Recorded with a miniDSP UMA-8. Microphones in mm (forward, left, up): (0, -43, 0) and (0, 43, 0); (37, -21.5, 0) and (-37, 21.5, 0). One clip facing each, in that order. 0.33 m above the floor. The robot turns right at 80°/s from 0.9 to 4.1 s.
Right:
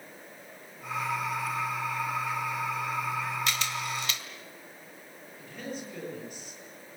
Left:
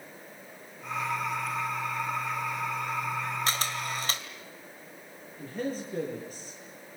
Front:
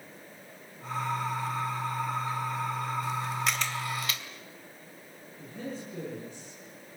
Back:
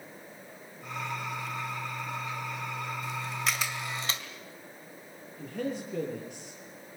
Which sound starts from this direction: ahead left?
A camera shutter, at 3.5 s.